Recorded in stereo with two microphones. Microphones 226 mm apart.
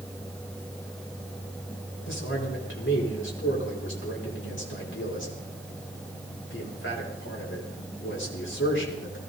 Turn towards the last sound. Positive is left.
turn(degrees=55)  # may be behind; listen again after turning